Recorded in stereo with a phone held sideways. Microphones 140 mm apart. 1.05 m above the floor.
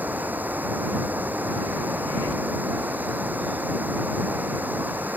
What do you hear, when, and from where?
0.0 s running water: 15° right (ahead or behind)